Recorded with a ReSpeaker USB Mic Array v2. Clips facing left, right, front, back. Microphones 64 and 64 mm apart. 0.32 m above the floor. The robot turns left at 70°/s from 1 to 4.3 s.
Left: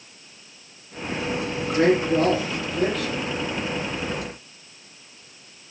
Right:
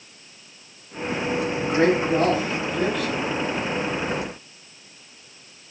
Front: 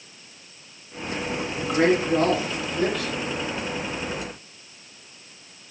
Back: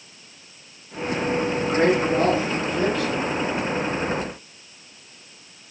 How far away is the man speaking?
About 1.7 m.